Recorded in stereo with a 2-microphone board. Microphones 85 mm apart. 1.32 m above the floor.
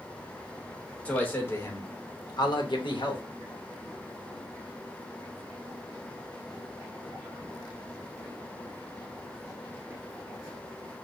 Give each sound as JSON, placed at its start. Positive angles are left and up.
{"t": 1.1, "sound": "a man speaking", "side_deg": 15, "distance_m": 1.3}